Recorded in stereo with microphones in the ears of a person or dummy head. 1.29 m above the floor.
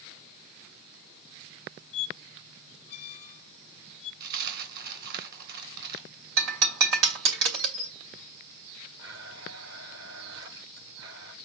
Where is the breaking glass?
70° right (ahead or behind), 2.5 m.